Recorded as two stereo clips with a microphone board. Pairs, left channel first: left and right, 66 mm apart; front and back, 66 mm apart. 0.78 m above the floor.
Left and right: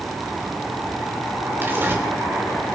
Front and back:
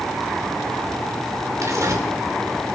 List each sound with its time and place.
1.6 s tearing paper: 145° right, 2.5 m